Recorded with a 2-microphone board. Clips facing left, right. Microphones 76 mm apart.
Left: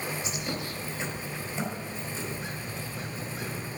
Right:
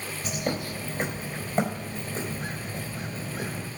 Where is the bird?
45° right (ahead or behind), 3.5 m.